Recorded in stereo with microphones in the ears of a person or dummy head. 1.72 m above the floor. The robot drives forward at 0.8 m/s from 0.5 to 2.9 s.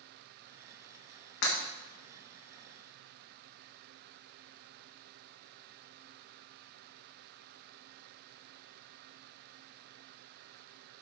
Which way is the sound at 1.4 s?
65° left (ahead or behind).